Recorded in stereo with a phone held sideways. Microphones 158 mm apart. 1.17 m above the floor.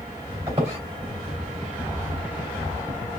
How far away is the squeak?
About 2.5 m.